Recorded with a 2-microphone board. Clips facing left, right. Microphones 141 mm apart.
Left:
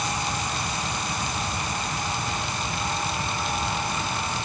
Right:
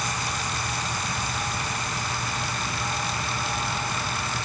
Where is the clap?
I don't hear a clap.